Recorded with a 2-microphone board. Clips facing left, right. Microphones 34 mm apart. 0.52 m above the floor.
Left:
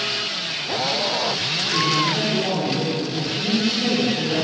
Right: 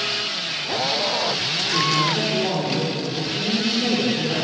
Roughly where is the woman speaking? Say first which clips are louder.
Even; centre.